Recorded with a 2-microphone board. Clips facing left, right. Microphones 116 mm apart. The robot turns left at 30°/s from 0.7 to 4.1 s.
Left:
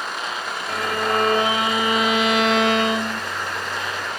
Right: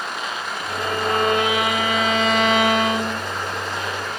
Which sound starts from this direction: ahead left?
A violin, at 0.7 s.